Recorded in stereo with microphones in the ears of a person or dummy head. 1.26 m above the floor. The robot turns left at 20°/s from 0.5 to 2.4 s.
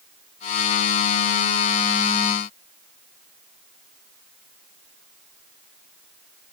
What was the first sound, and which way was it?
Only background noise.